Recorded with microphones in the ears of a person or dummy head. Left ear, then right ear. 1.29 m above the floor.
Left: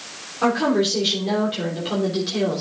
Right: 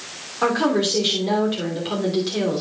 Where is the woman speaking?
15° right (ahead or behind), 3 m.